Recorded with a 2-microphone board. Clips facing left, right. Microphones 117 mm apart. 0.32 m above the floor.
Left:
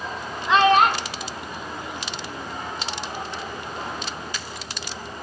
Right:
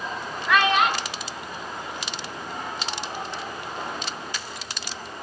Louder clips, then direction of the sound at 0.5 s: Left 4 dB; 20° left (ahead or behind).